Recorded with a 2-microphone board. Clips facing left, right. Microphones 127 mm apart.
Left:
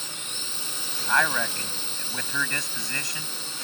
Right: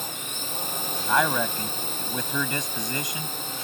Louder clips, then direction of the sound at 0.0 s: Right 5 dB; 55° right (ahead or behind).